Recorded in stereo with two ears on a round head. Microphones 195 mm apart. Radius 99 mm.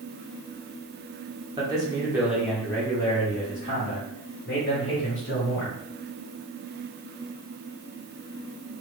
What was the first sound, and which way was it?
A man speaking, 20° right (ahead or behind).